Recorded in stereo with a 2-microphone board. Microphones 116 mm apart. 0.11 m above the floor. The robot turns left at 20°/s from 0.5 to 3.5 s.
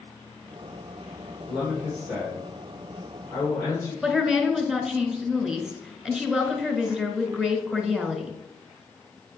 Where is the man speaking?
165° right, 3 m; by 3.9 s 155° left, 3 m.